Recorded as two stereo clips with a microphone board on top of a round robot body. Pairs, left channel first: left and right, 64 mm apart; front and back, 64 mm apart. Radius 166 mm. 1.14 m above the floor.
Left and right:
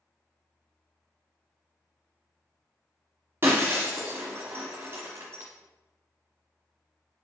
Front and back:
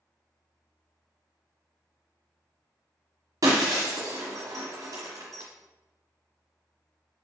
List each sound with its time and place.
3.4 s breaking glass: 145° right, 0.9 m